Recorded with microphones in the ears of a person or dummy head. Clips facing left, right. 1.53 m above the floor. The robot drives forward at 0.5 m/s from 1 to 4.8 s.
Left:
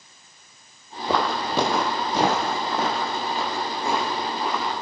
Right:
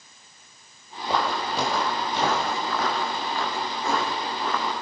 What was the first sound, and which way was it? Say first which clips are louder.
Footsteps: left 2 dB; 55° left (ahead or behind).